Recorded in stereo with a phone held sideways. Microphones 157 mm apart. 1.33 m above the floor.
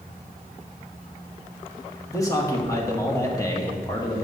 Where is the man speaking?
20° left (ahead or behind), 1.4 m.